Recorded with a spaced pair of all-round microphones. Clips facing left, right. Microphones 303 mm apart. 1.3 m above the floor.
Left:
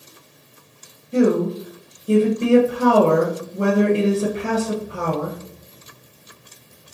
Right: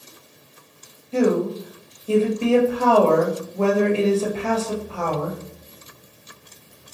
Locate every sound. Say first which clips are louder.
1.1 s a woman speaking: left 2 dB; 20° left (ahead or behind), 0.8 m